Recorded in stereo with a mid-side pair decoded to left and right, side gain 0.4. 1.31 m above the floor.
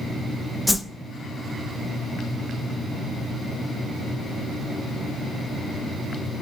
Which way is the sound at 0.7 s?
10° left.